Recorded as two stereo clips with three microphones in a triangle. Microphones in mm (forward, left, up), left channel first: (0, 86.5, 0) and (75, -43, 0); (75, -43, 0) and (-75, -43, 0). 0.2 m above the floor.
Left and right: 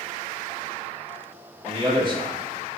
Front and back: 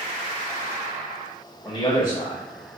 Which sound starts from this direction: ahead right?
A man speaking, at 1.6 s.